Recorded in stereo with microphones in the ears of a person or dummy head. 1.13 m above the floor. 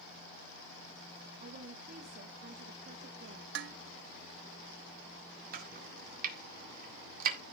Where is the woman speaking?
40° right (ahead or behind), 1.5 m.